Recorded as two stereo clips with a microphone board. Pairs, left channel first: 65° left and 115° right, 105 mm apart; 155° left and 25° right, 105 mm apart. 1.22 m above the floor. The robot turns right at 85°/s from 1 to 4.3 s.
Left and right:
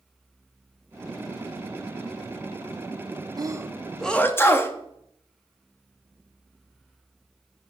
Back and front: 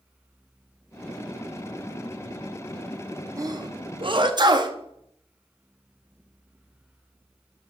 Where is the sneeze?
75° right, 0.8 m; by 4.8 s 5° left, 0.8 m.